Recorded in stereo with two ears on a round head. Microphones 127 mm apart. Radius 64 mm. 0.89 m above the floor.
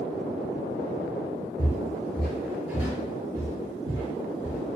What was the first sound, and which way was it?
Footsteps, 25° left (ahead or behind).